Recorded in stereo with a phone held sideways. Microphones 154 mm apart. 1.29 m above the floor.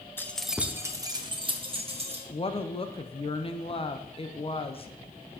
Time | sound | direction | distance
0.2 | keys jangling | 15° left (ahead or behind) | 0.5 m
2.3 | a woman speaking | 35° left (ahead or behind) | 0.5 m